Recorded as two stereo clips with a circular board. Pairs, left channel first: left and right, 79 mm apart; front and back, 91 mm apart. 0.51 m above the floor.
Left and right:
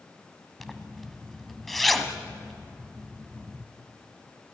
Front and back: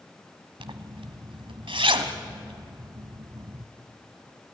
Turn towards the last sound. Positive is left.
turn(degrees=180)